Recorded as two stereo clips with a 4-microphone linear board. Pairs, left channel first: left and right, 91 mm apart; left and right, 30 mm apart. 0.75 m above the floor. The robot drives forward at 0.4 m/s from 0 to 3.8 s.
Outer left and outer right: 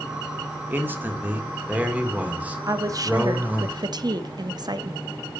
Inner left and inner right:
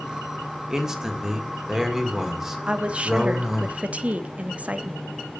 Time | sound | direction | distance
0.7 | a man speaking | 20° right (ahead or behind) | 1.6 m
2.7 | a woman speaking | 40° right (ahead or behind) | 1.0 m